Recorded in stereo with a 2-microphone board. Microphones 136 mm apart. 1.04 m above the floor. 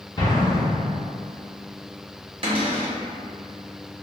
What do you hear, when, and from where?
0.2 s an explosion: 35° left (ahead or behind), 0.8 m
2.4 s a cupboard door: 40° right (ahead or behind), 0.8 m